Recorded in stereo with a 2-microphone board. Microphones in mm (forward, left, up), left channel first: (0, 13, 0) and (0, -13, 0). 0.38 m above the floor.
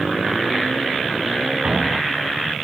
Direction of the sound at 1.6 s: 55° right (ahead or behind).